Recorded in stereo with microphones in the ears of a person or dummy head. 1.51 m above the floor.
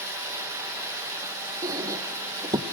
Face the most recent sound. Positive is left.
turn(degrees=-15)  # may be behind; listen again after turning